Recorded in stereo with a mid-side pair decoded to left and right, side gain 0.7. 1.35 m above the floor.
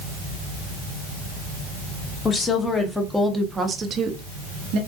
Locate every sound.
2.2 s a woman speaking: 25° left, 1.1 m; by 4.8 s 65° right, 1.0 m